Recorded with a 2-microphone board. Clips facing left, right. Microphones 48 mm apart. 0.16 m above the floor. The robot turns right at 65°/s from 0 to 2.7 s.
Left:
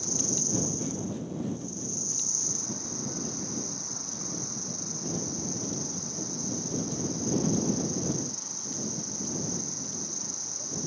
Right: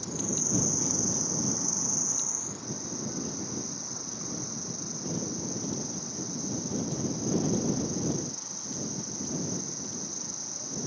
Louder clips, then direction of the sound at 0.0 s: Even; straight behind.